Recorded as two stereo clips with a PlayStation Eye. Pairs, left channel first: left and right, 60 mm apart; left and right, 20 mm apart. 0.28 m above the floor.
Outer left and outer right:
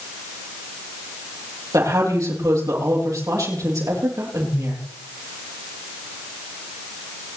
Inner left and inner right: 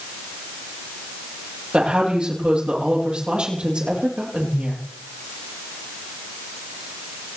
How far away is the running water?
I don't hear running water.